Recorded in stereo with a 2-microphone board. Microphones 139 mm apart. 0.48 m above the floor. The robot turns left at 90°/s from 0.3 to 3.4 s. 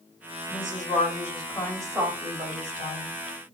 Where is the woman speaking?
120° left, 2.5 m; by 3.1 s 120° right, 2.5 m.